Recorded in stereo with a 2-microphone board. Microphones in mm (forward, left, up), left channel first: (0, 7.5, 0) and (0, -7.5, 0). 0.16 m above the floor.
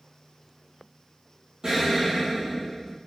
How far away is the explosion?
About 1.6 m.